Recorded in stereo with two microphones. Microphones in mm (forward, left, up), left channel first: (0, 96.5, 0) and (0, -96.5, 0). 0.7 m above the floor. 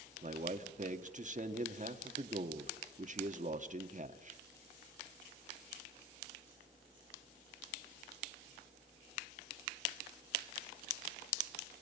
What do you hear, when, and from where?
0.2 s a man speaking: 40° right (ahead or behind), 1.3 m